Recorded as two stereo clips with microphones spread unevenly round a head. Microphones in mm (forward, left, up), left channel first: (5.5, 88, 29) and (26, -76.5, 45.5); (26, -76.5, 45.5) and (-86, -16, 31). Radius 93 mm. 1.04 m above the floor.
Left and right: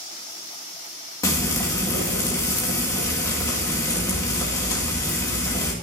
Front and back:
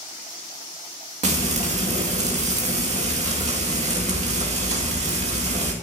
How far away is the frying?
About 2 m.